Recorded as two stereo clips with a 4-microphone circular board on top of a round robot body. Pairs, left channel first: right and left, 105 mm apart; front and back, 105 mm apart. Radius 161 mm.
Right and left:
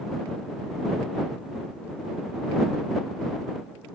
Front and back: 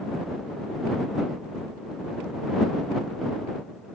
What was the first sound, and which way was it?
Only background noise.